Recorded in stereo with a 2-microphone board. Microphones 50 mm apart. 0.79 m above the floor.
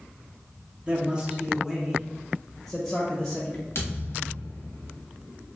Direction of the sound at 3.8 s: 60° left (ahead or behind).